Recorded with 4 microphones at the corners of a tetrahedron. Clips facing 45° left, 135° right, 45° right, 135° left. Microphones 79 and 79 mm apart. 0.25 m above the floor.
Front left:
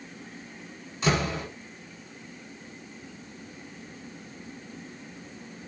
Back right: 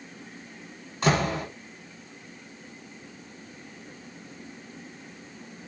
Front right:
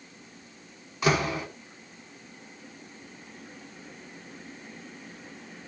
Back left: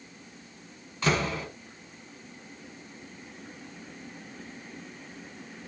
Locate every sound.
1.0 s a door slam: 120° right, 1.7 m